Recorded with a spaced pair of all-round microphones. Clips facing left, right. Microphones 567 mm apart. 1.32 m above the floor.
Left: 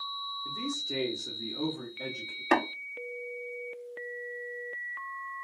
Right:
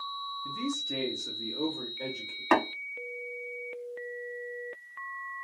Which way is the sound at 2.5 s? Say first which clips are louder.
Right 1 dB; 25° right (ahead or behind).